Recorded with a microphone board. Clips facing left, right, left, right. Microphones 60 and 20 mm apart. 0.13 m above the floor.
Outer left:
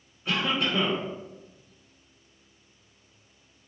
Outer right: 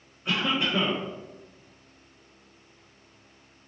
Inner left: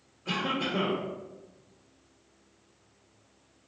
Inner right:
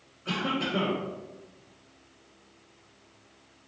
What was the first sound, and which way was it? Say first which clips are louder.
A cough: even, inner right 1 dB; 20° right (ahead or behind).